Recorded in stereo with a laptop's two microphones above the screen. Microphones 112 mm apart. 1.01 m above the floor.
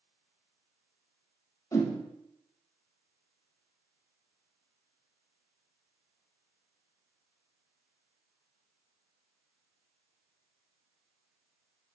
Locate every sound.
1.7 s a whoosh: 30° left (ahead or behind), 1.0 m